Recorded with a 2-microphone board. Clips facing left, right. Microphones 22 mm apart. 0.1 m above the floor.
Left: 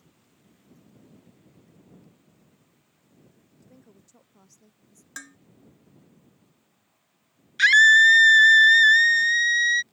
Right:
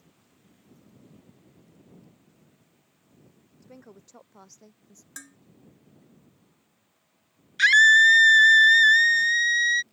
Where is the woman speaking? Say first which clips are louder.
Right 6 dB; 40° right (ahead or behind); by 5.1 s 45° right (ahead or behind).